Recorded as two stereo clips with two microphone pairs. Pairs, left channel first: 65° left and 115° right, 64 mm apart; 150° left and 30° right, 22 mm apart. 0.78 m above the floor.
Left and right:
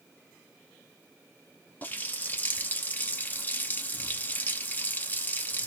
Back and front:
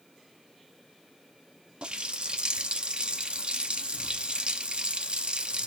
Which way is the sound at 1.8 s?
5° left.